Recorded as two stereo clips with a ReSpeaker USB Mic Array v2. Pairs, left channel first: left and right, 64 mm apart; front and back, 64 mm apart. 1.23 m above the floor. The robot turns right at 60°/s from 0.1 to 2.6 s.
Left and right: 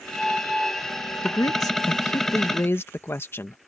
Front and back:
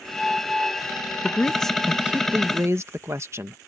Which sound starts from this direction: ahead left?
A man speaking, at 1.2 s.